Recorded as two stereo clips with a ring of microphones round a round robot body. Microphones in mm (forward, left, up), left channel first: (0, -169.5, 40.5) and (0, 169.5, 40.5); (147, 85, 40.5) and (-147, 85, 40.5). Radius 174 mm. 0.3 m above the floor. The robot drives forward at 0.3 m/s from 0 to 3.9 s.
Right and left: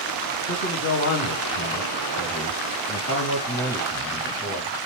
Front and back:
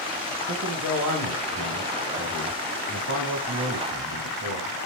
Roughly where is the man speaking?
Behind right.